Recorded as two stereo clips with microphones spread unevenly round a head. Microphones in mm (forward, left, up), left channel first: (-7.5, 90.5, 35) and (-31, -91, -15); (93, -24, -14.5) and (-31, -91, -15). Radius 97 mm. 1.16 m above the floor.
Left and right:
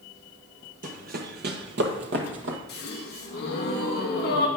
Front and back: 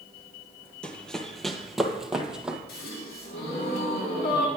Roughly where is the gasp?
Ahead left.